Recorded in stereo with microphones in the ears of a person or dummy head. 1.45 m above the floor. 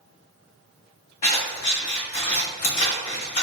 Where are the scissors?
35° left (ahead or behind), 1.2 m.